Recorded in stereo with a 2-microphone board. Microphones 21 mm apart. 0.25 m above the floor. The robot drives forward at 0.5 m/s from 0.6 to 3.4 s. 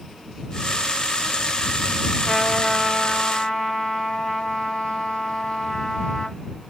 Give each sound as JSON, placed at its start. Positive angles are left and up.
{"t": 2.2, "sound": "a trumpet", "side_deg": 45, "distance_m": 1.4}